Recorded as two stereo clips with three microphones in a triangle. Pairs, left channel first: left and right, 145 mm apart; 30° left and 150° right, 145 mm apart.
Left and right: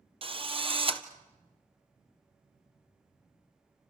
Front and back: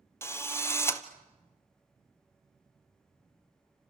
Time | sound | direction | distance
0.2 | a drill | 40° right | 1.4 m